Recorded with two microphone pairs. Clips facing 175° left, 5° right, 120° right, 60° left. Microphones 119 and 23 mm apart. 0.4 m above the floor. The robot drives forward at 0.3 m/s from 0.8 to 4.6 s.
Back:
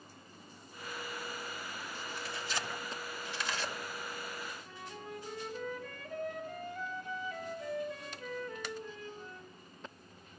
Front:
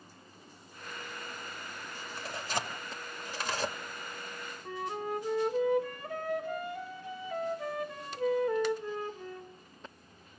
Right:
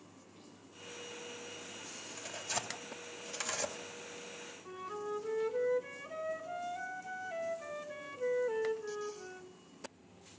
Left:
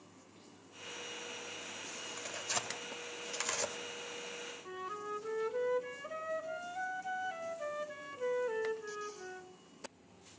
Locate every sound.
2.2 s tearing paper: 5° right, 2 m
4.7 s a flute: 10° right, 1.5 m